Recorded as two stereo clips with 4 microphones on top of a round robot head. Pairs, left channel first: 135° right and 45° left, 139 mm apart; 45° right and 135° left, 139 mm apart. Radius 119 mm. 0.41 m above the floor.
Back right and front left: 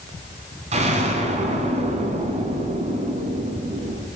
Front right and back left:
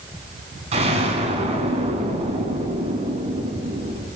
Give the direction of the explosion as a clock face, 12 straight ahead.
9 o'clock.